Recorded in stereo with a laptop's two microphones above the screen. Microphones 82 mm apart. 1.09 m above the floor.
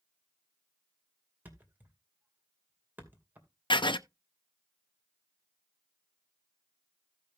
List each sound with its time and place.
1.4 s a thud: 25° right (ahead or behind), 2.5 m
3.7 s writing: 80° left, 0.5 m